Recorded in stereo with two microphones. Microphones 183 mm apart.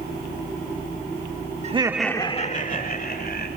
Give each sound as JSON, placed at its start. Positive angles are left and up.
{"t": 1.6, "sound": "laughter", "side_deg": -40, "distance_m": 0.9}